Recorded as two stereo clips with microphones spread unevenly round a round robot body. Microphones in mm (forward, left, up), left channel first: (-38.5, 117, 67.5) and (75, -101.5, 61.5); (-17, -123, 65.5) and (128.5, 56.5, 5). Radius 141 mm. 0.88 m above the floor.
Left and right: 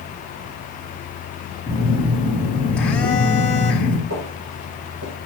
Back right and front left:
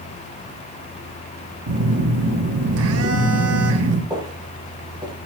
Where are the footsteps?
25° right, 7.5 m.